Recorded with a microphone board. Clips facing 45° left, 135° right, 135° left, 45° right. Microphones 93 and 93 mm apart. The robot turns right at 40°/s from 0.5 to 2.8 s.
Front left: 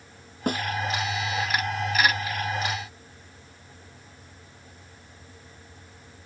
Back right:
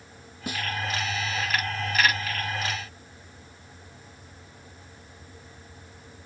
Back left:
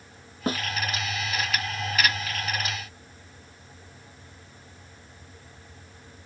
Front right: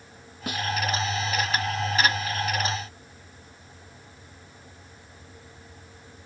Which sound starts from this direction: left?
A snare drum, at 0.5 s.